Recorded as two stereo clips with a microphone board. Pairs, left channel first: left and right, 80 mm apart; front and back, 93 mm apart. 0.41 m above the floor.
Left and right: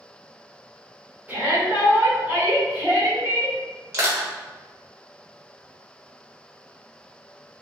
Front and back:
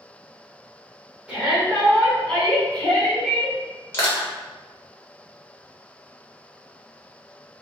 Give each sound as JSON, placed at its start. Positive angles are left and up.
{"t": 1.3, "sound": "a shout", "azimuth_deg": -115, "distance_m": 1.6}
{"t": 3.9, "sound": "crushing", "azimuth_deg": -50, "distance_m": 0.9}